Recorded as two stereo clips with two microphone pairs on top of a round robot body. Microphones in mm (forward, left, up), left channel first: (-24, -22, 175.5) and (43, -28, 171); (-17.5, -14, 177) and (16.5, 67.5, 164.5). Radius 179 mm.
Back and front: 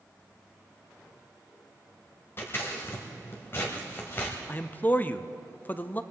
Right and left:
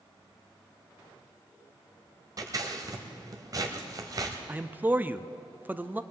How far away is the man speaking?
About 0.8 m.